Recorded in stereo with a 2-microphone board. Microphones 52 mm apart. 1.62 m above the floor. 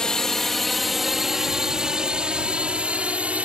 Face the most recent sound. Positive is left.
turn(degrees=-25)  # may be behind; listen again after turning